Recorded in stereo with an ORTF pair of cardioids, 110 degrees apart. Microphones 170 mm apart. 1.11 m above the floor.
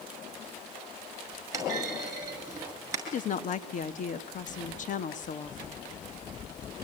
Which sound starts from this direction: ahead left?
A woman speaking, at 3.1 s.